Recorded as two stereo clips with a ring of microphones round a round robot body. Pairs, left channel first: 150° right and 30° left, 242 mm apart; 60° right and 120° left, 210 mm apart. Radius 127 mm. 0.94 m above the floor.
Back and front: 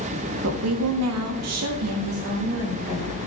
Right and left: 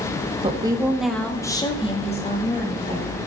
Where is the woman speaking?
60° left, 1.8 m; by 3.2 s 15° right, 4 m.